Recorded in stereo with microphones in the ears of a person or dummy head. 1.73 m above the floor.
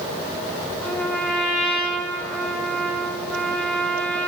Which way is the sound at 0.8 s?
10° left (ahead or behind).